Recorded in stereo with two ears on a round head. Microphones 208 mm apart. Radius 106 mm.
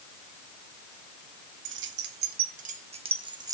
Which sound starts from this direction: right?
Keys jangling, at 1.6 s.